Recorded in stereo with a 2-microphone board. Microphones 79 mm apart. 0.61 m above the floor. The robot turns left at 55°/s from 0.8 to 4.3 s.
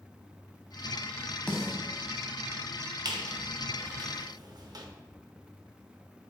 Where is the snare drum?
10° left (ahead or behind), 0.8 m; by 1.8 s 25° left (ahead or behind), 0.8 m.